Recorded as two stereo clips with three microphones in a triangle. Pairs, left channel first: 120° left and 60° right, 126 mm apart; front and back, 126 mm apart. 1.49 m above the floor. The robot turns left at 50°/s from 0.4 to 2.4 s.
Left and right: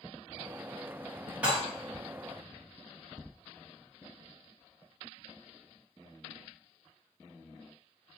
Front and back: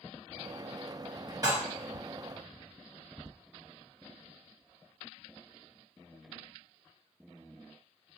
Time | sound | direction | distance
1.4 | dishes clattering | 135° right | 1.0 m